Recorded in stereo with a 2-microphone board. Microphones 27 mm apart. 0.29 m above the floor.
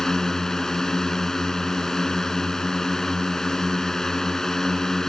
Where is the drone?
20° left (ahead or behind).